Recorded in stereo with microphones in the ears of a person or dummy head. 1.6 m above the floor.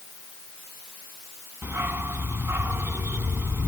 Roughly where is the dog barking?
Centre.